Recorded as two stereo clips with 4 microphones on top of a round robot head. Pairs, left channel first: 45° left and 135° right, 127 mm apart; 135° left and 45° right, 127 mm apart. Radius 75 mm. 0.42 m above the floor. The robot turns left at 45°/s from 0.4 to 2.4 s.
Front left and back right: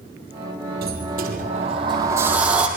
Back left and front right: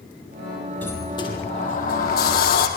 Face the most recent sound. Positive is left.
turn(degrees=140)